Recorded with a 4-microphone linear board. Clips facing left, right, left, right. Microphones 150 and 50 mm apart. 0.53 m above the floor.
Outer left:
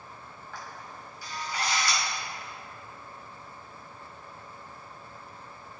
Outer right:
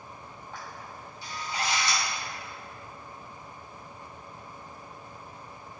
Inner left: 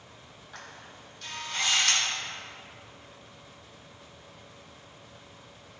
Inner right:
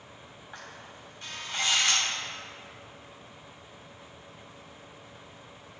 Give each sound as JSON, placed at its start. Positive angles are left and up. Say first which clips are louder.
{"t": 0.5, "sound": "a camera shutter", "louder": "even, even", "side_deg": -25, "distance_m": 3.0}